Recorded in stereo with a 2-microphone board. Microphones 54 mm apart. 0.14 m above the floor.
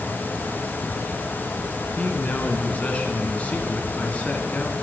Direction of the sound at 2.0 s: 25° left (ahead or behind).